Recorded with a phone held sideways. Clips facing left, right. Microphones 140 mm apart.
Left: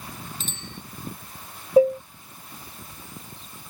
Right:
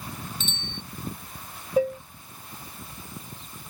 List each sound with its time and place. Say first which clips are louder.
0.4 s a bicycle bell: right 2 dB; 40° left (ahead or behind)
1.8 s dishes clattering: left 7 dB; 30° left (ahead or behind)